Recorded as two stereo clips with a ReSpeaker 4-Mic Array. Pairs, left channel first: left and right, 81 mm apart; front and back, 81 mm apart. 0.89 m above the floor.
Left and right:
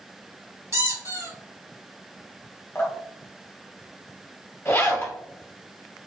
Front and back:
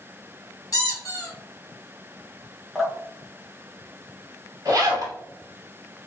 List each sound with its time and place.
0.7 s a squeak: 50° right, 1.6 m
2.8 s dripping: 90° left, 0.9 m
4.7 s a zipper: 145° left, 1.4 m